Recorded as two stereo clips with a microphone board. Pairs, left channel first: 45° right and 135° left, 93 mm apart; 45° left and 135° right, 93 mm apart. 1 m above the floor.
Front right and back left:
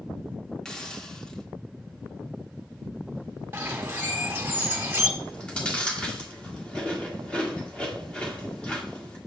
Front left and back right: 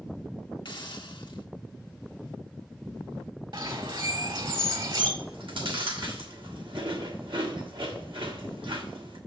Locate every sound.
0.7 s a hiss: 35° left, 0.9 m
3.5 s a bird: 160° right, 1.4 m
5.2 s chewing: 120° right, 1.8 m